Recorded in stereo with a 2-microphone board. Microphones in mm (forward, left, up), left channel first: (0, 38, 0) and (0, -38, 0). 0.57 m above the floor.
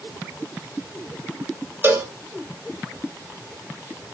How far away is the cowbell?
About 0.7 m.